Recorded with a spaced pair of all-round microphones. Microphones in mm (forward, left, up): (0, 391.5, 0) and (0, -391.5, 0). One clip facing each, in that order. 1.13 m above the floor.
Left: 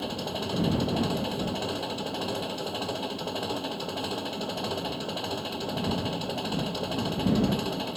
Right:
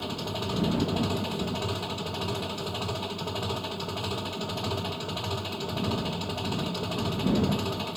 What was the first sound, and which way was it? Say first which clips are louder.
An engine running: left 1 dB; 35° right (ahead or behind).